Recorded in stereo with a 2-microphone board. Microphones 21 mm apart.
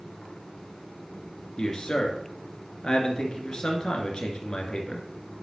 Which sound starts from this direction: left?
A man speaking, at 1.6 s.